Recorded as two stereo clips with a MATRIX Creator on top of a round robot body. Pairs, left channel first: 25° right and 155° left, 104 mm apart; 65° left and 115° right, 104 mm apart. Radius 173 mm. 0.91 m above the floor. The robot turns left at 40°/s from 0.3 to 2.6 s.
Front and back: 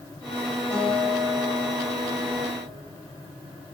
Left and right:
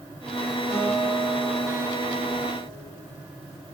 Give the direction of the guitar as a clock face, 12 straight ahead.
3 o'clock.